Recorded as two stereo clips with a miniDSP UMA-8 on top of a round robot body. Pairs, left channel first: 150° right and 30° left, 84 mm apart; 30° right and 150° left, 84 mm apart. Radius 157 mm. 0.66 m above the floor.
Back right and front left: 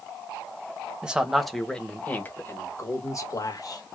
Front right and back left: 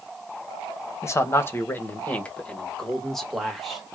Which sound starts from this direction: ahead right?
A man speaking, at 1.0 s.